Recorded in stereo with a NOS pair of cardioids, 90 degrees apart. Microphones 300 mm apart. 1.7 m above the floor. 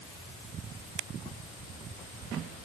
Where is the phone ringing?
I don't hear a phone ringing.